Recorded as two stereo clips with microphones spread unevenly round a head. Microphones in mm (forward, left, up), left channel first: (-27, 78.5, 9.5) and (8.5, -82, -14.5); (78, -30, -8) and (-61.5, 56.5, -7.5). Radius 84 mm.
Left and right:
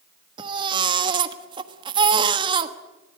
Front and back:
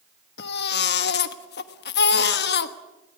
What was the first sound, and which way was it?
A baby crying, 10° right.